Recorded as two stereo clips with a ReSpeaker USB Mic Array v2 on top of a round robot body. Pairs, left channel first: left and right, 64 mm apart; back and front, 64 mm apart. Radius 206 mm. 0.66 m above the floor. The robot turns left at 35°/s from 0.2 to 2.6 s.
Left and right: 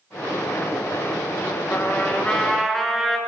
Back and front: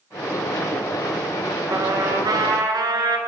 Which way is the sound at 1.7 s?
40° left.